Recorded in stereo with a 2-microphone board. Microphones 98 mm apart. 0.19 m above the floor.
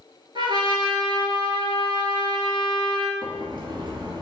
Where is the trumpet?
50° right (ahead or behind), 1.1 m.